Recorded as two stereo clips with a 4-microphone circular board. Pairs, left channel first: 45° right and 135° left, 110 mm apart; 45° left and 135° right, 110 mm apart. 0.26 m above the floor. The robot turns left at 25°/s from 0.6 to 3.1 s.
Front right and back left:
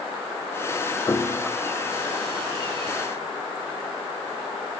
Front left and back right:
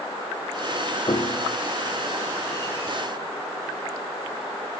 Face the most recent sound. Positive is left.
turn(degrees=-30)